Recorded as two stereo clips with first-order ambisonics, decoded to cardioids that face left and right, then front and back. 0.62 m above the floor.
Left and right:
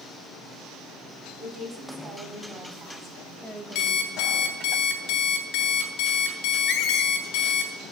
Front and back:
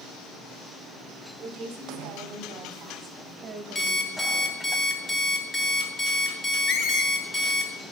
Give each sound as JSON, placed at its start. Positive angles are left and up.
{"t": 1.4, "sound": "a woman speaking", "azimuth_deg": -135, "distance_m": 2.0}
{"t": 3.8, "sound": "an alarm clock", "azimuth_deg": 70, "distance_m": 1.2}
{"t": 6.7, "sound": "a squeak", "azimuth_deg": 45, "distance_m": 0.9}